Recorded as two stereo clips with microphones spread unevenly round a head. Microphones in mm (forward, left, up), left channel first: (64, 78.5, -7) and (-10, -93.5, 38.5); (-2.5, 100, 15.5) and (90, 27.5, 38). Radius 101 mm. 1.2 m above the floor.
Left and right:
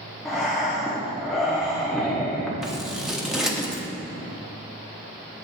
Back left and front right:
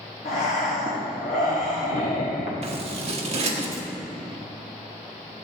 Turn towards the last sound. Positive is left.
turn(degrees=-30)